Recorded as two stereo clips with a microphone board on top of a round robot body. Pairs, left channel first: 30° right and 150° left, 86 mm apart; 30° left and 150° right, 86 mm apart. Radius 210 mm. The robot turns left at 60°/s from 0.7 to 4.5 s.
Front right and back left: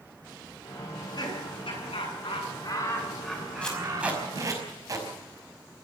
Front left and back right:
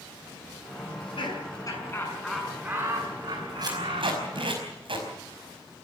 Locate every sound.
0.9 s laughter: 30° left, 6.5 m; by 4.6 s 170° left, 6.5 m
3.6 s tape being pulled: 110° right, 5 m; by 5.1 s 160° right, 5 m